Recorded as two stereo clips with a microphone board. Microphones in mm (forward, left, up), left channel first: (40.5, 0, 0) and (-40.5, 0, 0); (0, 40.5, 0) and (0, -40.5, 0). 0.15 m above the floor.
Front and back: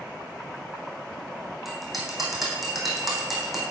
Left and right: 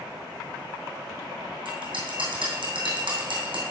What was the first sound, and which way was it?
A bell, 90° right.